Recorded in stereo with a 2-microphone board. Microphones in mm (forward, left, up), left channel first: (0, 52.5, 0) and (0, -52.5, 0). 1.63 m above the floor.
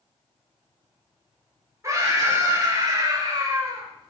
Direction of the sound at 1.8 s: 25° right (ahead or behind).